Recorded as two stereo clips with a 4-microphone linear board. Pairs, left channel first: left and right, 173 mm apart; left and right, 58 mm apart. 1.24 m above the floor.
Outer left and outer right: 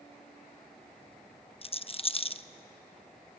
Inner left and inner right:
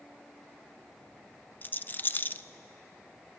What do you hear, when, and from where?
1.6 s a rattle: 35° left (ahead or behind), 0.6 m